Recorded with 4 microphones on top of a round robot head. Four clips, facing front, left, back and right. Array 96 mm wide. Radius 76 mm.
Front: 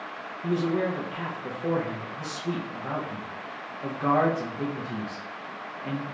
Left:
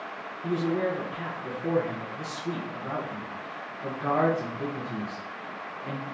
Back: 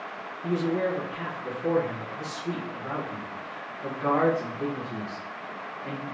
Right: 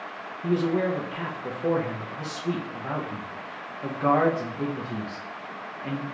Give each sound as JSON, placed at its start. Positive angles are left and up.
{"t": 0.4, "sound": "a man speaking", "azimuth_deg": -65, "distance_m": 0.9}